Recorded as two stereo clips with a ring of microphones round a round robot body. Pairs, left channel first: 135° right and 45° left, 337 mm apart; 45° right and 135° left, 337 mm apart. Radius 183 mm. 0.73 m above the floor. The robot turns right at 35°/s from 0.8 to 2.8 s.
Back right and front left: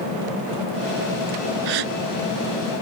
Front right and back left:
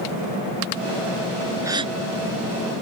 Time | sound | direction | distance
1.6 | a gasp | 55° left | ?